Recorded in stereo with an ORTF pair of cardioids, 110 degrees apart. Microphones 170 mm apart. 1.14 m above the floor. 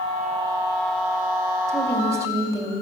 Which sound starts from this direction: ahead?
A woman speaking, at 1.7 s.